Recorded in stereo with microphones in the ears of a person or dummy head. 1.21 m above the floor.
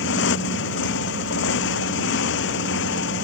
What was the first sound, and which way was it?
A motorcycle, 70° left (ahead or behind).